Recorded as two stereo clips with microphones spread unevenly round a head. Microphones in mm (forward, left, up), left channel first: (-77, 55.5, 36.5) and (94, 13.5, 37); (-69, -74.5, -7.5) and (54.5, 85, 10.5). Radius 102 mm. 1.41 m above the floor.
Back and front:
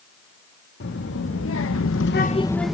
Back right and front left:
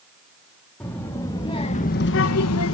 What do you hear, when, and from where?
0.8 s a child speaking: 150° left, 2.5 m; by 2.7 s 100° right, 1.1 m